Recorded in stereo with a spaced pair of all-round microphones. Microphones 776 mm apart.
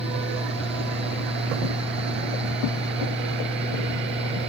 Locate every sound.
0.0 s a fan: 5° right (ahead or behind)